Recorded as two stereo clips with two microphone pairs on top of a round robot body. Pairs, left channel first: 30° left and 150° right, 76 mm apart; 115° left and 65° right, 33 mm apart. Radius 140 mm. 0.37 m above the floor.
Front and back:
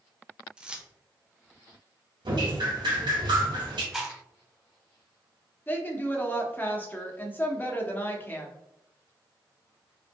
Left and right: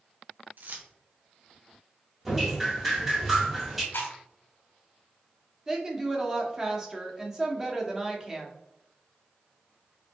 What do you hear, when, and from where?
0.6 s keys jangling: 70° right, 0.9 m
2.2 s dripping: 150° right, 1.5 m
3.9 s chewing: 125° left, 0.9 m
5.7 s a woman speaking: straight ahead, 1.4 m